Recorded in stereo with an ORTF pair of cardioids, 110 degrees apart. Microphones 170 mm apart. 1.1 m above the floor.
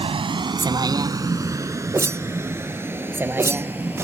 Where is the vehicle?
35° right; by 4.0 s 10° right.